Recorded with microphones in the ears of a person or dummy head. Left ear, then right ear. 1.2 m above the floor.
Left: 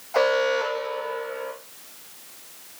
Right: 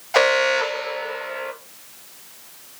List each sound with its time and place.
0.1 s an alarm: 60° right (ahead or behind), 1.5 m